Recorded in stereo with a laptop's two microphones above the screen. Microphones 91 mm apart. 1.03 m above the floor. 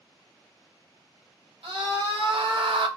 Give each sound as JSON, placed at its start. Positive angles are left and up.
{"t": 1.6, "sound": "a scream", "side_deg": -85, "distance_m": 1.2}